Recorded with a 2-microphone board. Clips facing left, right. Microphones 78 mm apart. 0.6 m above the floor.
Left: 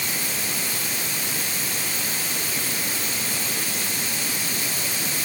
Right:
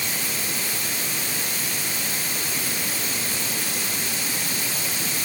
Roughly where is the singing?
No singing in this recording.